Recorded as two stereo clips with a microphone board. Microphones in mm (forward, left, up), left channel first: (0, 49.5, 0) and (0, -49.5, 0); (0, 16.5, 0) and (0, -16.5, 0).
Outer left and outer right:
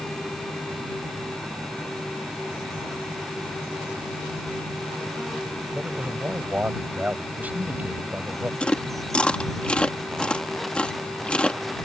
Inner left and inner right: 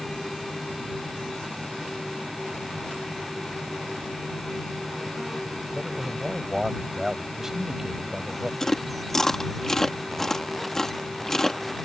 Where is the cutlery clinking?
No cutlery clinking in this recording.